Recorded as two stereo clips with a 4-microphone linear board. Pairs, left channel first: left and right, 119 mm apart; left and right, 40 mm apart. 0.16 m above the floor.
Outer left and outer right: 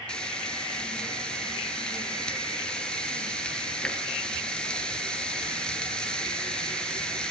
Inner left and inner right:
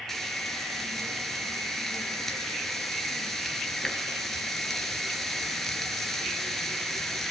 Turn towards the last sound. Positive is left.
turn(degrees=5)  # may be behind; listen again after turning